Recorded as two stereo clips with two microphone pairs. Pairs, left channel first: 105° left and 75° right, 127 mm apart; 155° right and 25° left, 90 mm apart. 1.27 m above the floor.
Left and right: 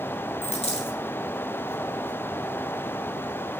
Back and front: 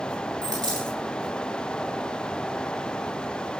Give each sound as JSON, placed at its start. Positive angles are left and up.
{"t": 0.4, "sound": "a dropped coin", "azimuth_deg": 65, "distance_m": 9.0}